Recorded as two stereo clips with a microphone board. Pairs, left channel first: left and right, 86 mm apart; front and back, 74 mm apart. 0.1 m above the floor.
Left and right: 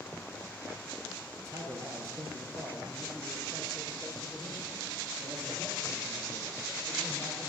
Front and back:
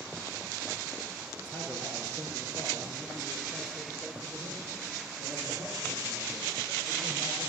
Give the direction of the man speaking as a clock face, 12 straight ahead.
2 o'clock.